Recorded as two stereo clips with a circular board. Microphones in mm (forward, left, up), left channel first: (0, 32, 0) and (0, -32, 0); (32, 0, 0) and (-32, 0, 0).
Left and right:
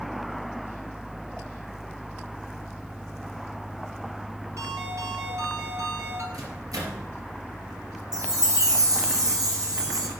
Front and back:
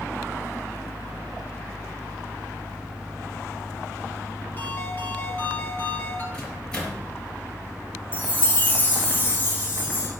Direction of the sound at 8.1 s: 65° right.